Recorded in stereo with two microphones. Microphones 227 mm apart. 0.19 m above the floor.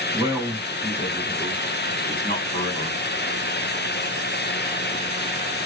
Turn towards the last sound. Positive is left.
turn(degrees=35)  # may be behind; listen again after turning